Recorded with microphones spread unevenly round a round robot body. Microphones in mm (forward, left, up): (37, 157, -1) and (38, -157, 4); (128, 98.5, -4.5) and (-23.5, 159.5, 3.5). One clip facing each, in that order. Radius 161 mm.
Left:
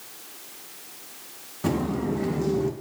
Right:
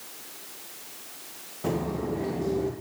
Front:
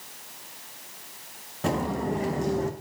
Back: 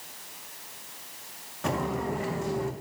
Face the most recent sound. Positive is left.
turn(degrees=25)